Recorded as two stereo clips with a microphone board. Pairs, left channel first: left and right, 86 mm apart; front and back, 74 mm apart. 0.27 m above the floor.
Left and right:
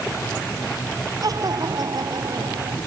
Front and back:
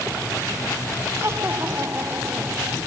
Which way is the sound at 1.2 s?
130° right.